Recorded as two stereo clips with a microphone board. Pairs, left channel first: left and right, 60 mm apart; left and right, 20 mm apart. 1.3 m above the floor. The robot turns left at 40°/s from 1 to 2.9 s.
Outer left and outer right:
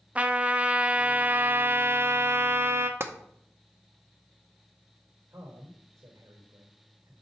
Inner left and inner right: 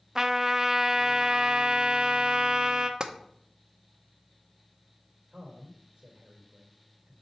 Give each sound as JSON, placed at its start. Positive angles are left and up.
{"t": 0.1, "sound": "a trumpet", "azimuth_deg": -35, "distance_m": 0.6}
{"t": 3.0, "sound": "tapping", "side_deg": -45, "distance_m": 0.7}
{"t": 5.3, "sound": "a man speaking", "side_deg": -85, "distance_m": 4.0}